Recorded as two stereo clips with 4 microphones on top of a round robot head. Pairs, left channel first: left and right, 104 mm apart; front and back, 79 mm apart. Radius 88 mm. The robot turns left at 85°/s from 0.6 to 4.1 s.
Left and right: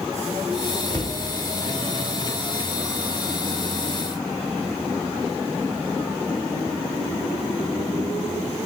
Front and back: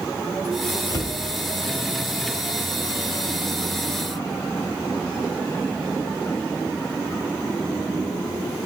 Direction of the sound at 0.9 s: 25° left.